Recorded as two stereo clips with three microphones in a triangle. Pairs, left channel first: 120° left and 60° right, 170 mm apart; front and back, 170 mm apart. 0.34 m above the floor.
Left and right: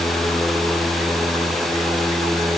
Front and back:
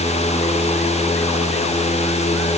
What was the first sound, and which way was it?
Only background noise.